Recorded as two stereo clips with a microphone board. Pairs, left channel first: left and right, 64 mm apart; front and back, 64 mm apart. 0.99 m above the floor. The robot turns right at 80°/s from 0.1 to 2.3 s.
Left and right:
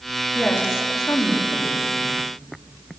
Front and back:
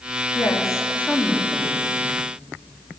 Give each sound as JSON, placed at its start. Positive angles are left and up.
{"t": 0.3, "sound": "a woman speaking", "azimuth_deg": 15, "distance_m": 1.5}